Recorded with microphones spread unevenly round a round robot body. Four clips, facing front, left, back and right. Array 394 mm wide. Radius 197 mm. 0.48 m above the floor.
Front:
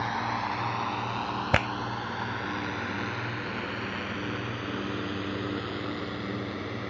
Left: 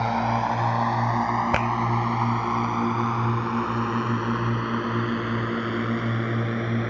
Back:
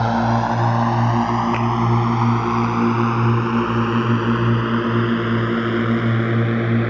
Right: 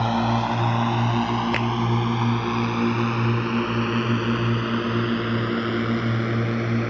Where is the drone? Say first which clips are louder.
Right 1 dB, back 12 dB; 160° right; by 6.9 s 170° right.